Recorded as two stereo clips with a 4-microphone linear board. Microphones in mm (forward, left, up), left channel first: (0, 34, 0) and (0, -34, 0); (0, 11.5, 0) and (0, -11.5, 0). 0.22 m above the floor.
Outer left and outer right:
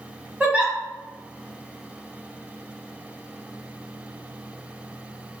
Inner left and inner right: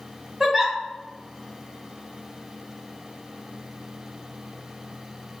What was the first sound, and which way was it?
A giggle, 20° right (ahead or behind).